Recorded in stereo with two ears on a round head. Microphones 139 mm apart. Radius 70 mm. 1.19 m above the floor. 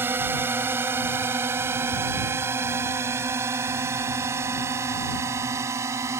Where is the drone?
15° right (ahead or behind); by 6.2 s 20° right (ahead or behind).